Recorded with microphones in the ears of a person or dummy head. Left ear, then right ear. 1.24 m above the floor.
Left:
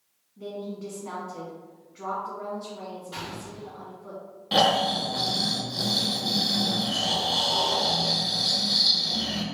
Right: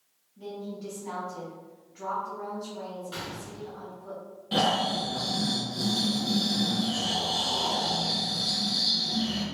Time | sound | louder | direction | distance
0.4 | a woman speaking | left 3 dB | centre (ahead or behind) | 1.4 m
3.1 | a gunshot | left 1 dB | 30° right (ahead or behind) | 1.7 m
4.5 | snoring | left 4 dB | 30° left (ahead or behind) | 0.6 m